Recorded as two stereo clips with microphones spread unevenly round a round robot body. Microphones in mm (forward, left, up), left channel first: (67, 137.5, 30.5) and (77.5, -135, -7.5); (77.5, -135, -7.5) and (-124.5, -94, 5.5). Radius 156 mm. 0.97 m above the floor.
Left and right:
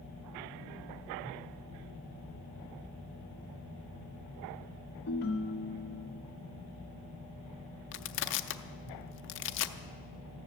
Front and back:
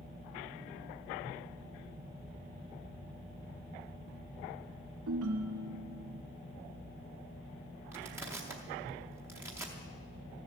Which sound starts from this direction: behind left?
A ringtone, at 5.1 s.